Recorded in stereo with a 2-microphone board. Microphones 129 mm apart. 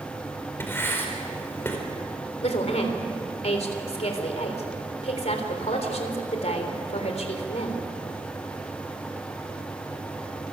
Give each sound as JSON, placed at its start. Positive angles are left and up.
{"t": 0.6, "sound": "writing", "side_deg": 15, "distance_m": 4.5}
{"t": 2.4, "sound": "a woman speaking", "side_deg": 55, "distance_m": 3.5}